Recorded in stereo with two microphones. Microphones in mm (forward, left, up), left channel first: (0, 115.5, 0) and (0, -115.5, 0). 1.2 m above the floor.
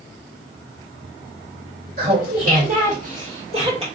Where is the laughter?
45° right (ahead or behind), 2.5 m; by 3.9 s 25° right (ahead or behind), 2 m.